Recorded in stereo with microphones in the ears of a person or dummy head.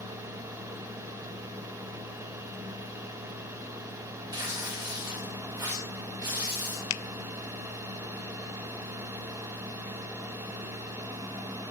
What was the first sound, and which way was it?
Tearing paper, 20° right (ahead or behind).